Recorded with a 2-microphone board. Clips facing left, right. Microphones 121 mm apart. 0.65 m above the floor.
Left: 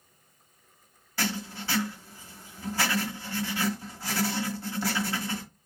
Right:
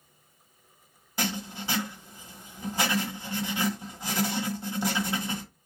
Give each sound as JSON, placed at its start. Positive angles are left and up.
{"t": 1.2, "sound": "writing", "side_deg": -20, "distance_m": 1.0}